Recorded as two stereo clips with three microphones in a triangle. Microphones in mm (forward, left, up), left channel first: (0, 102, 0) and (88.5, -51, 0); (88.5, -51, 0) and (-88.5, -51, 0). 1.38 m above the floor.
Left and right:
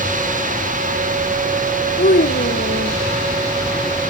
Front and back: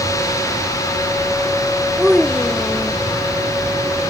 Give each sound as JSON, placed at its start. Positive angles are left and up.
{"t": 2.0, "sound": "a child speaking", "azimuth_deg": 95}